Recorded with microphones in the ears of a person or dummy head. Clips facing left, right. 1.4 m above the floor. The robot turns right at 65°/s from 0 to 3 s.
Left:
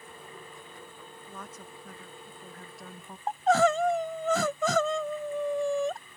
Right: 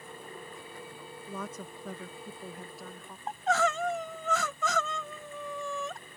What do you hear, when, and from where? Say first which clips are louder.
1.3 s a woman speaking: right 7 dB; 100° right; by 3.2 s 10° left
3.3 s crying: left 6 dB; 35° left (ahead or behind)